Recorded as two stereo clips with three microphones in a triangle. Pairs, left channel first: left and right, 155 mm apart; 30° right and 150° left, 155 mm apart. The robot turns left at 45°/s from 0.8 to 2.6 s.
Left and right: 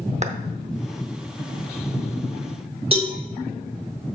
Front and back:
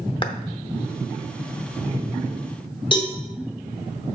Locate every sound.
0.2 s a clap: 75° right, 0.7 m
2.9 s a cowbell: 65° right, 1.7 m